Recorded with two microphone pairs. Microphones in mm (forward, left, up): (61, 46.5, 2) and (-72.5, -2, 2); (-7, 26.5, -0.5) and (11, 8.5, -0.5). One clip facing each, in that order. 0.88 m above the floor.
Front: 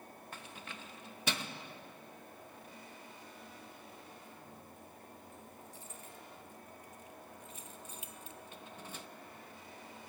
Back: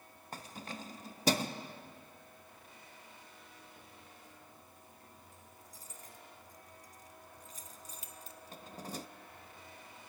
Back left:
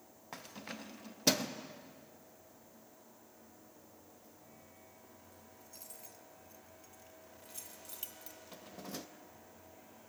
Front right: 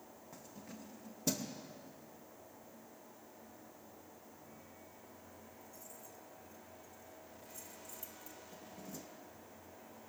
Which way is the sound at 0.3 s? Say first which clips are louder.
Back 7 dB, back left 7 dB; 150° left.